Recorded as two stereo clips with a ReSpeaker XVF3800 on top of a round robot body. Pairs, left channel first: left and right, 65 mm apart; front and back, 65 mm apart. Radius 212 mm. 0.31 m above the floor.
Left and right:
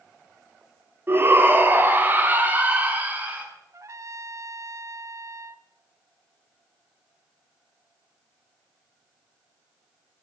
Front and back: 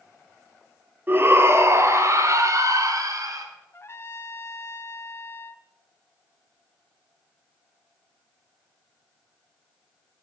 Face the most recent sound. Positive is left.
turn(degrees=-50)